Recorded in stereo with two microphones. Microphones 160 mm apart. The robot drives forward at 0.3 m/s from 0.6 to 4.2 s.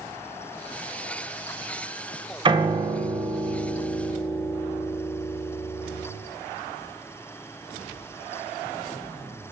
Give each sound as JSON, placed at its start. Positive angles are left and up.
{"t": 2.5, "sound": "a piano", "side_deg": -30, "distance_m": 0.6}